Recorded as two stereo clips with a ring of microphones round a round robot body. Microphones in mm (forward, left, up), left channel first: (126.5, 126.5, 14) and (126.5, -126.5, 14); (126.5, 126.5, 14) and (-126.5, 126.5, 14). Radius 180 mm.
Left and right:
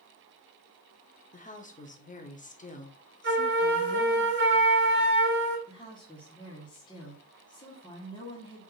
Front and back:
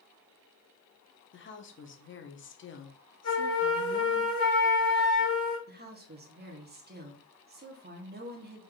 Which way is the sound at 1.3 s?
35° left.